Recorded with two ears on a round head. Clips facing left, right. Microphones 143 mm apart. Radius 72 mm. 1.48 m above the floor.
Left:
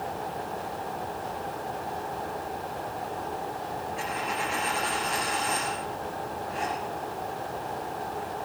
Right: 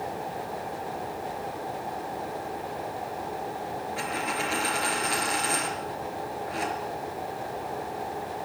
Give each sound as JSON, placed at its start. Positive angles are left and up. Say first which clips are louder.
{"t": 4.0, "sound": "a dropped coin", "louder": "even", "side_deg": -70, "distance_m": 4.5}